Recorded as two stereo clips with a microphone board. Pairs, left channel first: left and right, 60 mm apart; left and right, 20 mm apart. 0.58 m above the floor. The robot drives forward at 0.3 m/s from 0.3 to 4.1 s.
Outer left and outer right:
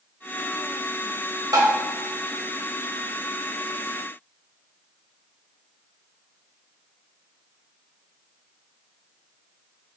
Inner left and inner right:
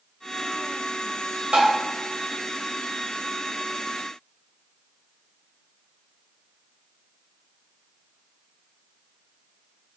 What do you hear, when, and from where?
1.5 s tapping: 85° right, 0.9 m; by 1.8 s 90° right, 0.9 m